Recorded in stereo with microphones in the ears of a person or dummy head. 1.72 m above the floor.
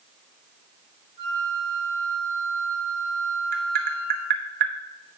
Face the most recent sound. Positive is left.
turn(degrees=-45)  # may be behind; listen again after turning